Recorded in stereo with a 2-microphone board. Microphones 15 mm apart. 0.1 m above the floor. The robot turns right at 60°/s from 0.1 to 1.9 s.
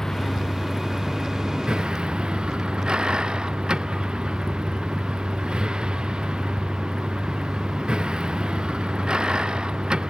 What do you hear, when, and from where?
0.0 s a vehicle: 155° left; by 10.1 s 95° right